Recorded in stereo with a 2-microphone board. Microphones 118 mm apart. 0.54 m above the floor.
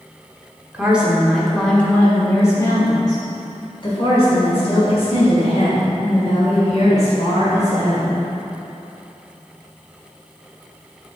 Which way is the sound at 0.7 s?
10° right (ahead or behind).